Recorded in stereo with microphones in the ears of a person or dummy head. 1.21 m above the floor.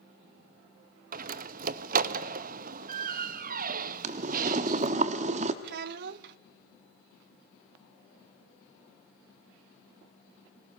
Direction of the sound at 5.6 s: 55° right (ahead or behind).